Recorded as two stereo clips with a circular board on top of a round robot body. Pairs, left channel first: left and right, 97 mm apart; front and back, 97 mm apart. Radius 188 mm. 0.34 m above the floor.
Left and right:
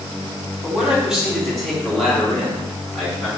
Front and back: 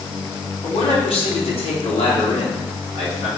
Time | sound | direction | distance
0.6 | a man speaking | 10° right | 3.5 m